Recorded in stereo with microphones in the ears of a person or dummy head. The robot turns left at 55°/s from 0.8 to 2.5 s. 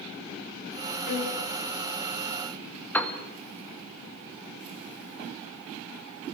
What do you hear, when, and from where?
1.1 s a violin: 60° left (ahead or behind), 4 m; by 1.4 s 75° left (ahead or behind), 4 m
2.9 s a piano: 5° left (ahead or behind), 2 m